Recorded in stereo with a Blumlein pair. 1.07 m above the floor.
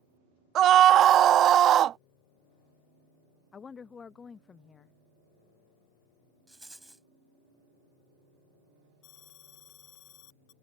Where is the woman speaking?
20° left.